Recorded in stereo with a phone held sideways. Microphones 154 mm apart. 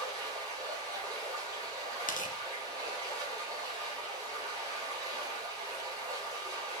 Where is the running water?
25° right (ahead or behind), 5 m.